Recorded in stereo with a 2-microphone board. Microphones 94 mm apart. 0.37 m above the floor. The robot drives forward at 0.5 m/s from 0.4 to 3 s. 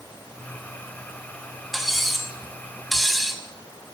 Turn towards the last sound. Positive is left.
turn(degrees=0)  # may be behind; listen again after turning